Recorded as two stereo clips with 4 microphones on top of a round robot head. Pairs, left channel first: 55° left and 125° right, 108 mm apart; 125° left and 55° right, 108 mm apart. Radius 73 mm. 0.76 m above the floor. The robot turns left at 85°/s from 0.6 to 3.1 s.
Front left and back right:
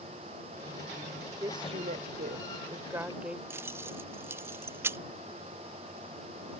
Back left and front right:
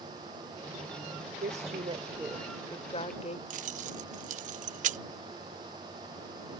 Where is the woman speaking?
60° right; by 3.4 s 155° left.